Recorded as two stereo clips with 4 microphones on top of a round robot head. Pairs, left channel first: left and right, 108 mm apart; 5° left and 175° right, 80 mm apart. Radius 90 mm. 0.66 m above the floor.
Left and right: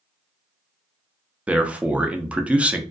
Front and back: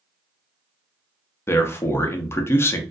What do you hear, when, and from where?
1.5 s a man speaking: 20° right, 0.5 m